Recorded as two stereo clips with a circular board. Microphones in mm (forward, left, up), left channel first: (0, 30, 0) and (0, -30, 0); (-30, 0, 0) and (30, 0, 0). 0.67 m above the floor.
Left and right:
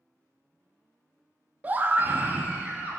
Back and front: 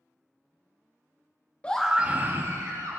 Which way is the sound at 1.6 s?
130° right.